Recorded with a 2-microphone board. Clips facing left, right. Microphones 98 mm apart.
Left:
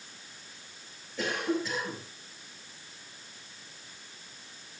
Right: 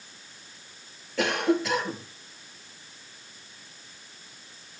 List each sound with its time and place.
1.2 s a cough: 80° right, 4 m